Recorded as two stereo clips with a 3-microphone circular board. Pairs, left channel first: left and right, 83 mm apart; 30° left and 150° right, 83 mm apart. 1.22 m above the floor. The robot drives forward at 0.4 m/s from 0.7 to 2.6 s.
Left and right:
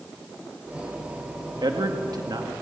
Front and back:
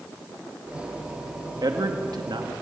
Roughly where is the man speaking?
Behind right.